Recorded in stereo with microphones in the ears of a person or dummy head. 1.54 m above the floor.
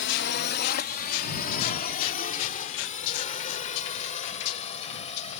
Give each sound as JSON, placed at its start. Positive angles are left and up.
{"t": 0.0, "sound": "a drone", "side_deg": 55}